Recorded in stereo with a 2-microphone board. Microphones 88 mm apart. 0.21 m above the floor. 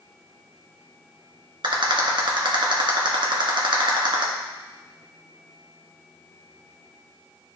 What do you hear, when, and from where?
1.6 s a rattle: 65° right (ahead or behind), 1.8 m